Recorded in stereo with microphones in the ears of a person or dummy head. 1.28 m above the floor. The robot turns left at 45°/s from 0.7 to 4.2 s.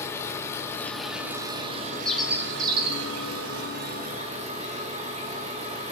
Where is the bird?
5° left, 2.5 m; by 3.1 s 40° right, 2.5 m.